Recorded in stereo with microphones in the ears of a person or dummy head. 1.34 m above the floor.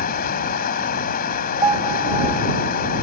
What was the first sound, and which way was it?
Running water, 50° left (ahead or behind).